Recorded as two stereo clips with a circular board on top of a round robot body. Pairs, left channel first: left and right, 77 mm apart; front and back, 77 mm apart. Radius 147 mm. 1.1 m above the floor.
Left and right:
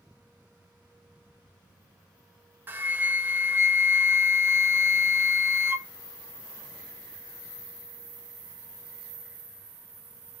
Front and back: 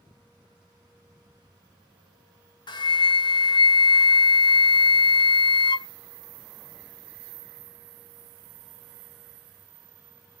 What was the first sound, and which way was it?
A flute, 25° right.